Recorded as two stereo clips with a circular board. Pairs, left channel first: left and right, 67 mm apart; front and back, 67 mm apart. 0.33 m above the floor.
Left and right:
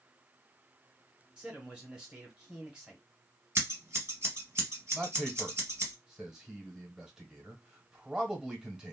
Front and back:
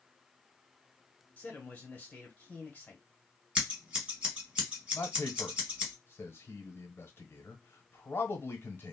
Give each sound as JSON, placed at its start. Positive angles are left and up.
{"t": 1.4, "sound": "a man speaking", "azimuth_deg": -25, "distance_m": 1.2}
{"t": 3.5, "sound": "scissors", "azimuth_deg": -115, "distance_m": 1.8}
{"t": 4.9, "sound": "a man speaking", "azimuth_deg": -15, "distance_m": 1.0}